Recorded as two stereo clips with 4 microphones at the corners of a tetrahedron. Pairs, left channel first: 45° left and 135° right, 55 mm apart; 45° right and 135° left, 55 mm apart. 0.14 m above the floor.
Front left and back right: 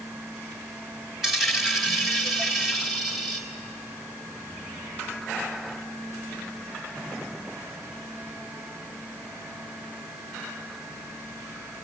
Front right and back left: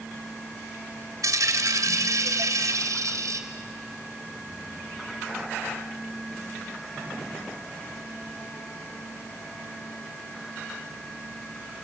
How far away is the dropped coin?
About 3 m.